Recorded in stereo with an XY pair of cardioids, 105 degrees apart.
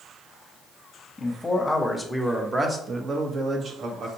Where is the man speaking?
25° left, 1.1 m; by 4.1 s 60° right, 1.3 m.